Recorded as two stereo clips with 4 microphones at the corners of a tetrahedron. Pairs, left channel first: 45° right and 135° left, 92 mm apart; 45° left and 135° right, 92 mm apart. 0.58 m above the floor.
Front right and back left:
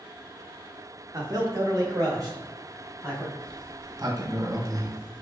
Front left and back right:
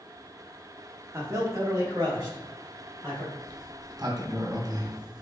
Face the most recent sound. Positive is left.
turn(degrees=180)